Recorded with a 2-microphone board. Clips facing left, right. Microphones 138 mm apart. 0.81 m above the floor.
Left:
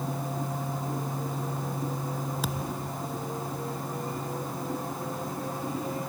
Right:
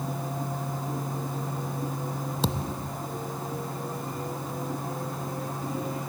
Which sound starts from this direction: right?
A thud, at 2.4 s.